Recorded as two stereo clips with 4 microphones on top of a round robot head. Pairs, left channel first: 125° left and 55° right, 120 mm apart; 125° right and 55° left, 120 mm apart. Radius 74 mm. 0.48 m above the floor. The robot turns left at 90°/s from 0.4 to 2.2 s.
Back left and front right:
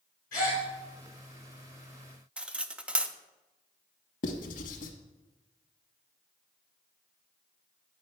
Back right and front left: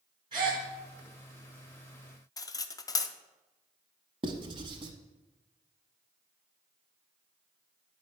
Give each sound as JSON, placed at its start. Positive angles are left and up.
{"t": 0.3, "sound": "a gasp", "azimuth_deg": 110, "distance_m": 3.5}
{"t": 2.4, "sound": "cutlery clinking", "azimuth_deg": -125, "distance_m": 0.5}
{"t": 4.2, "sound": "writing", "azimuth_deg": 105, "distance_m": 0.9}